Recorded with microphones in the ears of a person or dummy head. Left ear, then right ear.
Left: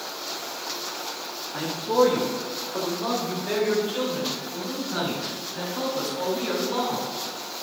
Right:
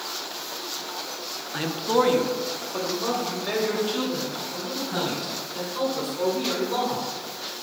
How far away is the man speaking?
About 0.8 m.